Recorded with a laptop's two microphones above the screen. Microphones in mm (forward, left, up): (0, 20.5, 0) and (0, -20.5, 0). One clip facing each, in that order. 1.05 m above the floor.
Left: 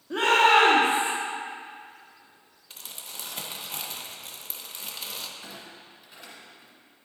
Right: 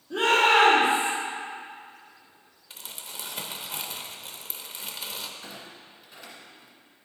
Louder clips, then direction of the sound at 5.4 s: Even; 5° left (ahead or behind).